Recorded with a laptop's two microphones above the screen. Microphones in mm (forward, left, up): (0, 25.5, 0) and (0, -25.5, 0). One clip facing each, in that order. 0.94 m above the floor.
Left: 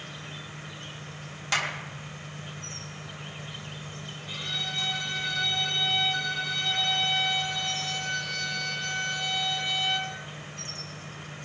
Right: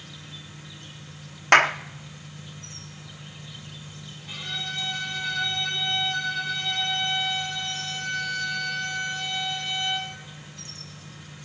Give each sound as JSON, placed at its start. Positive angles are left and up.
{"t": 0.0, "sound": "an insect", "side_deg": 50, "distance_m": 0.9}
{"t": 1.5, "sound": "a clap", "side_deg": -55, "distance_m": 0.5}
{"t": 4.3, "sound": "a violin", "side_deg": 5, "distance_m": 5.5}